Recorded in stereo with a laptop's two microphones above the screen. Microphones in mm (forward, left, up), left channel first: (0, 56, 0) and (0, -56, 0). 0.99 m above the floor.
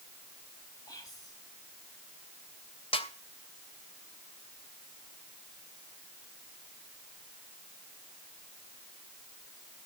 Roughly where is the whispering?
Left.